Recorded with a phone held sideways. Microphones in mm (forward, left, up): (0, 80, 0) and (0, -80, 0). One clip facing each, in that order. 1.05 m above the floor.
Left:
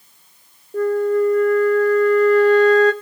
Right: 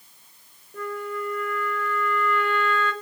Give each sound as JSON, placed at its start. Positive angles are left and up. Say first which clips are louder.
{"t": 0.7, "sound": "a flute", "louder": "left 14 dB", "side_deg": 40, "distance_m": 1.3}